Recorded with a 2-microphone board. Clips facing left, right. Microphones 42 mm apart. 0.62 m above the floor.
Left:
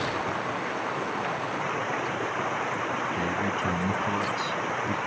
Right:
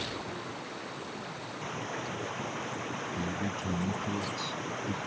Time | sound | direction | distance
0.0 | running water | 85° left | ?
3.1 | a man speaking | 65° left (ahead or behind) | ?